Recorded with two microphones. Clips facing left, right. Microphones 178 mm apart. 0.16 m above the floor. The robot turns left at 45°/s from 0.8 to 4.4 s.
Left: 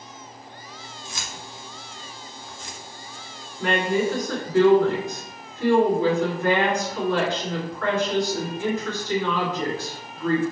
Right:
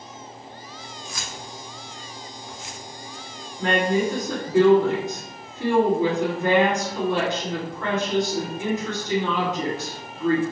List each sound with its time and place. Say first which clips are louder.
1.1 s keys jangling: right 1 dB; 30° left (ahead or behind), 0.9 m; by 2.8 s 10° right (ahead or behind), 0.9 m
3.6 s a woman speaking: right 1 dB; 105° right, 1.7 m; by 10.4 s 140° right, 1.7 m